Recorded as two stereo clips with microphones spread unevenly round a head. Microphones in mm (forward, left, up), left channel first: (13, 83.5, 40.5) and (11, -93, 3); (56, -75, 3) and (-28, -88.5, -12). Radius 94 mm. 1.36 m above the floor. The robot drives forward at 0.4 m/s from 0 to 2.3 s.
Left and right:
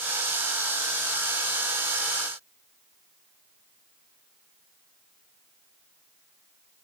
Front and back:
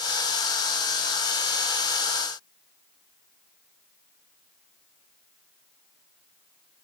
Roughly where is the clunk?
No clunk in this recording.